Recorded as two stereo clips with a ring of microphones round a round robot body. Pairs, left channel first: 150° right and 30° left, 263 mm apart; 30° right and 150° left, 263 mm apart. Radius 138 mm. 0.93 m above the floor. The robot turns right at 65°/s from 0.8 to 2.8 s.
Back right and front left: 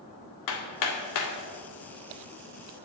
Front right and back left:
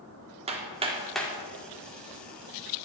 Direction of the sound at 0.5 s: 140° right.